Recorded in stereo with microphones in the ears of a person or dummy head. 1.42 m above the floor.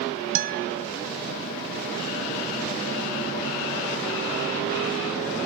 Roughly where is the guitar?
Right.